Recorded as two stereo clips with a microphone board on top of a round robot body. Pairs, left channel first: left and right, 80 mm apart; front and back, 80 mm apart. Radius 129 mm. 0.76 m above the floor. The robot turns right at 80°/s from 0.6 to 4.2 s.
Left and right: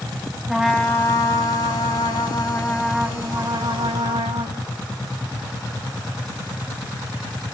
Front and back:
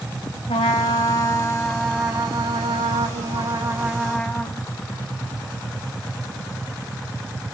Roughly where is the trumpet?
Ahead.